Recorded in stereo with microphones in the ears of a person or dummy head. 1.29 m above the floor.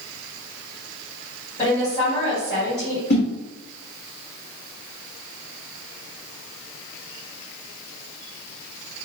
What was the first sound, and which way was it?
A woman speaking, 20° left (ahead or behind).